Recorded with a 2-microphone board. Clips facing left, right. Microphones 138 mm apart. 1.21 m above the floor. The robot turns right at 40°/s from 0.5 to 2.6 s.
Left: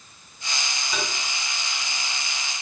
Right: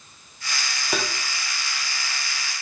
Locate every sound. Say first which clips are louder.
0.9 s tapping: right 4 dB; 65° right (ahead or behind), 0.5 m; by 1.1 s 70° right (ahead or behind), 0.5 m